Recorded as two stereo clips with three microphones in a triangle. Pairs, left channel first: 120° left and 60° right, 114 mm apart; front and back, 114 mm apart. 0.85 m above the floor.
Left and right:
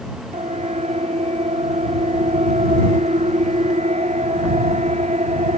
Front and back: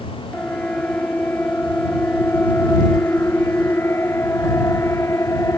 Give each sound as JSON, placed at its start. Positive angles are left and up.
{"t": 0.3, "sound": "a siren", "azimuth_deg": -80}